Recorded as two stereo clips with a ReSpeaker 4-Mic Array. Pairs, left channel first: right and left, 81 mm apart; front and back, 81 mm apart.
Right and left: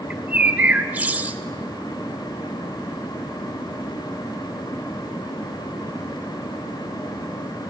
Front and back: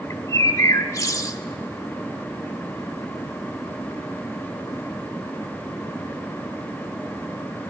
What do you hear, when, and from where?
0.1 s a bird: 25° left, 0.6 m